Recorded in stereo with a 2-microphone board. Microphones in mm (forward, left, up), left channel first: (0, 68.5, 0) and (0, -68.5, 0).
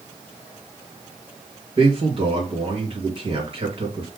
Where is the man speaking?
45° right (ahead or behind), 2.0 m.